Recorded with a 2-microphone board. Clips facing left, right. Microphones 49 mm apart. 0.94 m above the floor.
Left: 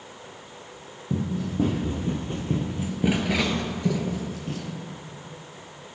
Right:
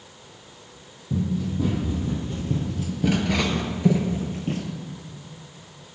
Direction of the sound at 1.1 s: 60° left (ahead or behind).